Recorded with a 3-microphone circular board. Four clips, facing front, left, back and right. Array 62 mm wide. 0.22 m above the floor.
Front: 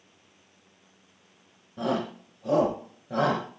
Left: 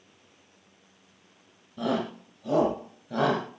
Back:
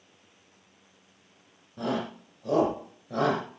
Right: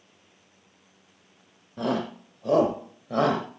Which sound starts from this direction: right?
A shout, at 1.8 s.